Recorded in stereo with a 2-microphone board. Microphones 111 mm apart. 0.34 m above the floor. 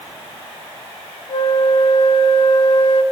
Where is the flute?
65° left (ahead or behind), 0.8 m.